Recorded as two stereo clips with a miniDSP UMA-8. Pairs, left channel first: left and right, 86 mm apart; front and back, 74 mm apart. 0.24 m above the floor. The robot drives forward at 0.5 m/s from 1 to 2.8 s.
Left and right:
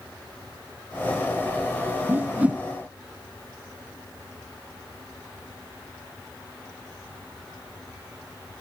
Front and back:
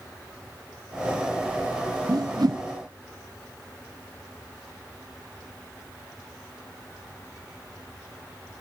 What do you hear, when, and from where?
2.1 s a whoosh: 155° right, 0.7 m; by 2.6 s 165° right, 0.9 m